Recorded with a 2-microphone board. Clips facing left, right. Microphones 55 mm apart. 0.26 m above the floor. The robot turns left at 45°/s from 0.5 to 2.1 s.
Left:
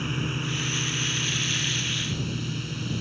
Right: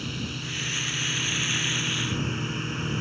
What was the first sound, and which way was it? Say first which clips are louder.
A drone: left 4 dB; 30° left.